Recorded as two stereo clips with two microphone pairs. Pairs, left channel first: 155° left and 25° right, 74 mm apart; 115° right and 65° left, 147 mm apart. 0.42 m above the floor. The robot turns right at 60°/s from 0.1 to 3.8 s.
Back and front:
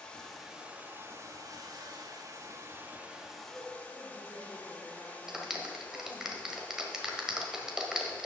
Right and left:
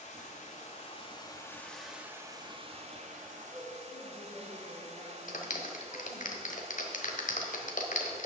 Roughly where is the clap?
Right.